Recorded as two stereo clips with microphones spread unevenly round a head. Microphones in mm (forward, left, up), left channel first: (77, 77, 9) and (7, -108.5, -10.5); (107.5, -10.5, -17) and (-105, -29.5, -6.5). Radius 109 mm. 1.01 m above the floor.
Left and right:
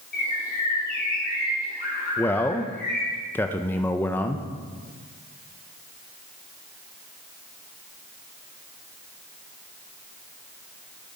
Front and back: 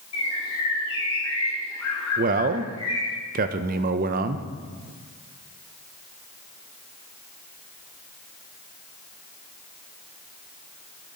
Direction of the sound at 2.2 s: 155° left.